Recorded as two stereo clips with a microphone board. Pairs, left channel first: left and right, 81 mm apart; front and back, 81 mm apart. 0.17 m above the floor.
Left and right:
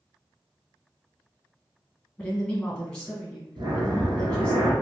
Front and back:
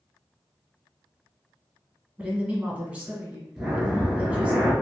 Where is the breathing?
100° right, 0.9 m.